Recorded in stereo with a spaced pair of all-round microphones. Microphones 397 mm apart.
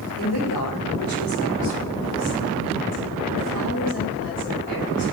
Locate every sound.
0.2 s a woman speaking: 60° left (ahead or behind), 3.5 m; by 5.0 s 30° left (ahead or behind), 7.5 m